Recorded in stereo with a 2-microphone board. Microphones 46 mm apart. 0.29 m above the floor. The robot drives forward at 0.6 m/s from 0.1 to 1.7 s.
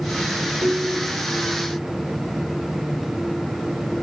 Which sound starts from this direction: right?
A ringtone, at 0.6 s.